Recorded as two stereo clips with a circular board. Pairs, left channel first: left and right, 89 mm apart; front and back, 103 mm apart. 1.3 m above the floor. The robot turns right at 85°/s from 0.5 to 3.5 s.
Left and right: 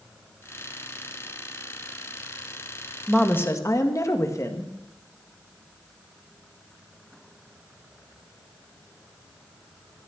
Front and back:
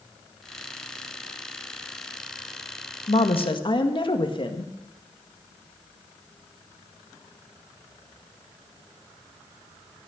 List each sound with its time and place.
3.1 s a woman speaking: straight ahead, 1.7 m; by 4.7 s 35° left, 1.7 m